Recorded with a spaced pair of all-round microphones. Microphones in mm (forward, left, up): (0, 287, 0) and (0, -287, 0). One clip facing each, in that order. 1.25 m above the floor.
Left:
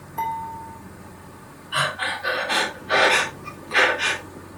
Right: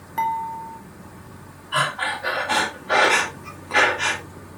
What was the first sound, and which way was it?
Dishes clattering, 80° right.